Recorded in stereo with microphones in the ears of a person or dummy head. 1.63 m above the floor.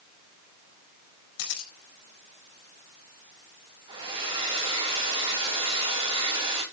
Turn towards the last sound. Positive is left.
turn(degrees=-25)  # may be behind; listen again after turning